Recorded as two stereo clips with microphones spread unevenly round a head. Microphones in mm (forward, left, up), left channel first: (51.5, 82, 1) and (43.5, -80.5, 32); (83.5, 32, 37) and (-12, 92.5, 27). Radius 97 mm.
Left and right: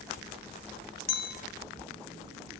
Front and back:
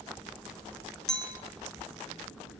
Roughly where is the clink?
Ahead left.